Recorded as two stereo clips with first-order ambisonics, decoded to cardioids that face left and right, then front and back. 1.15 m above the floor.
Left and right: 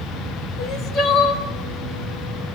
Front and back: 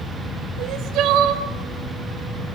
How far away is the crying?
About 3 m.